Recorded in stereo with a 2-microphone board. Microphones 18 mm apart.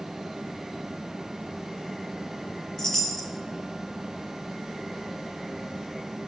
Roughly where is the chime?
Centre.